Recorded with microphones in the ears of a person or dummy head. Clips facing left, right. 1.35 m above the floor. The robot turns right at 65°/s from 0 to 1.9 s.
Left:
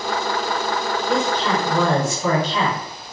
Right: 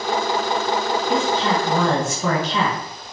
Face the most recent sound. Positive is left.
turn(degrees=-125)